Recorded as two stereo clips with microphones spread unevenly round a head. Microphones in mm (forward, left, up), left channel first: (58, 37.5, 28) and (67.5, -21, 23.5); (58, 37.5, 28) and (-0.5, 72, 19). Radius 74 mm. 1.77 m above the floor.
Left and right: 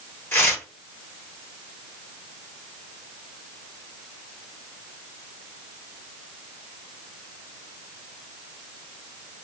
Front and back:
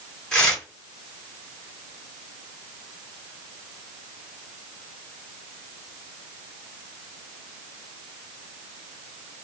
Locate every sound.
0.3 s tearing paper: 50° left, 2.5 m